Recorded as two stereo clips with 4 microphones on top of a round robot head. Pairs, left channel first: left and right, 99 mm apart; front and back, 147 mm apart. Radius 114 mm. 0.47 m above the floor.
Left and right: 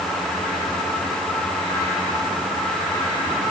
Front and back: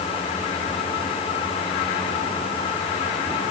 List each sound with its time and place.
Only background noise.